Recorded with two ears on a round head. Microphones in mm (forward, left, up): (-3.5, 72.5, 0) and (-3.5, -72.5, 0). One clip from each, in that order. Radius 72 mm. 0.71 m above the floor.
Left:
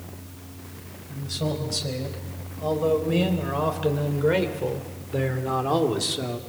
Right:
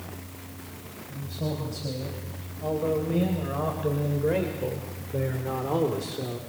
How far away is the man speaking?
About 4.5 m.